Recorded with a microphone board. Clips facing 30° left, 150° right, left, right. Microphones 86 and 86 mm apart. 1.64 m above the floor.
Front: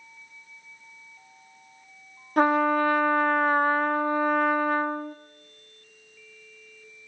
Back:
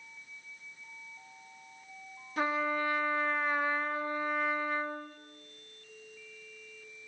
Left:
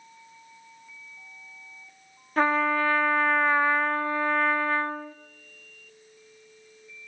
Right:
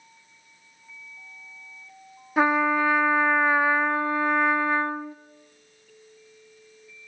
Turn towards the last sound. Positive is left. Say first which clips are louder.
# front 10 dB, right 2 dB
turn(degrees=-10)